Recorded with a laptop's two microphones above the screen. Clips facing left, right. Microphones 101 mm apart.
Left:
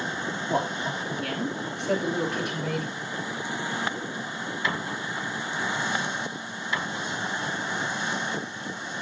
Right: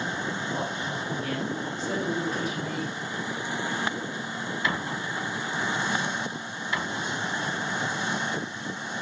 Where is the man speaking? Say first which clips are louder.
Left 3 dB; 70° left (ahead or behind), 6 m; by 2.9 s 65° left (ahead or behind), 4 m.